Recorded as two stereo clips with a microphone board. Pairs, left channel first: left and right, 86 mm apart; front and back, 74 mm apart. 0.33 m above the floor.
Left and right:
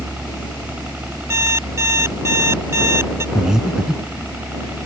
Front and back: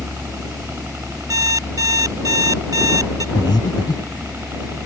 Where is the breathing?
5° right.